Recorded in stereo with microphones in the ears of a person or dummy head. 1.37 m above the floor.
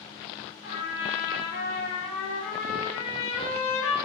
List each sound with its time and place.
0.6 s a trumpet: 65° left (ahead or behind), 1.4 m